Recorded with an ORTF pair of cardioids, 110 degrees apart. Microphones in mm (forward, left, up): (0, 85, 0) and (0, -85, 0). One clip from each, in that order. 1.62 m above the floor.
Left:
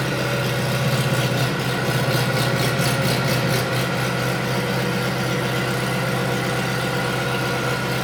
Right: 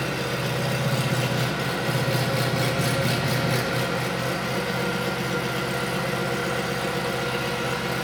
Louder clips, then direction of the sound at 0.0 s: Left 4 dB; 25° left.